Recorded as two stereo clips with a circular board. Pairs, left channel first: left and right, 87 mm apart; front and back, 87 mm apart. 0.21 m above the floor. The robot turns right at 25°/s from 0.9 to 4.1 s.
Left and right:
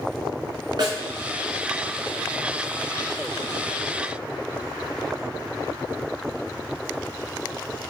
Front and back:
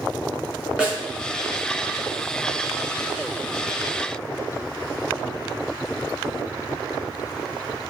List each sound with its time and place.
0.8 s a snare drum: 100° right, 1.6 m